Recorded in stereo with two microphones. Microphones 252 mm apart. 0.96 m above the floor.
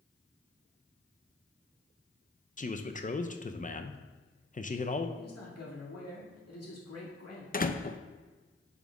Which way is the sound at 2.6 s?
30° left (ahead or behind).